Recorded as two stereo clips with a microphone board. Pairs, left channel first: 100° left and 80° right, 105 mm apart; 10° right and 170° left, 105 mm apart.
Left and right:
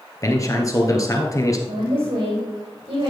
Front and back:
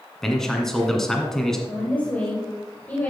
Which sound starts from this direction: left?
A man speaking, at 0.2 s.